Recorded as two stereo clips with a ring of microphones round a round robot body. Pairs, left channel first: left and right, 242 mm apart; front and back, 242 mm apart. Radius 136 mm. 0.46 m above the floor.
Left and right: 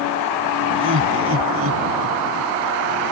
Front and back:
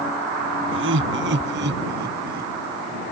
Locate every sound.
0.7 s laughter: 135° right; by 2.5 s 125° right